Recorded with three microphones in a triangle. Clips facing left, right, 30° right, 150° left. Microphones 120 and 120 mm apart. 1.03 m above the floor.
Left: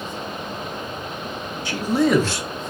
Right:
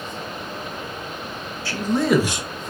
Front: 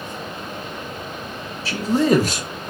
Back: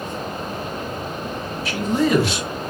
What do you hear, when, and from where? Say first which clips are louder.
1.6 s a man speaking: left 1 dB, front 2 dB; 20° left, 1.0 m; by 2.7 s 60° right, 0.7 m